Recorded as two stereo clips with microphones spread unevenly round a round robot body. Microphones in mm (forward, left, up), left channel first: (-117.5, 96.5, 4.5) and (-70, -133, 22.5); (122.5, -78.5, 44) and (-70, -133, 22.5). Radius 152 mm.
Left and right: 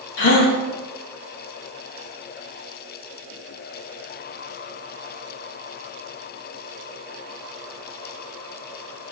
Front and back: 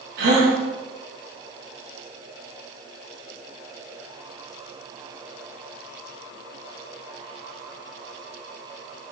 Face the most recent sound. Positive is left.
turn(degrees=145)